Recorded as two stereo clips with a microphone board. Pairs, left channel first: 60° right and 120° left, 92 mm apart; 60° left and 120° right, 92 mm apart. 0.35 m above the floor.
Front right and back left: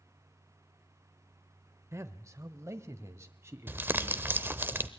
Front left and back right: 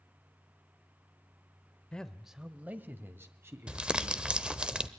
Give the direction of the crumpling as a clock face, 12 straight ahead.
6 o'clock.